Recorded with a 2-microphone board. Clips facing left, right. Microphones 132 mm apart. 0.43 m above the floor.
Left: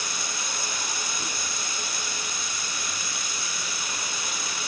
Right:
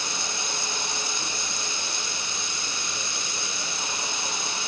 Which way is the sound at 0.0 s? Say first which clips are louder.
Right 2 dB; 30° right (ahead or behind).